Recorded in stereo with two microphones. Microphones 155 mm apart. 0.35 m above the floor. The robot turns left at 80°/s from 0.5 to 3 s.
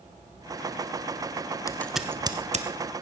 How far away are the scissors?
About 1.0 m.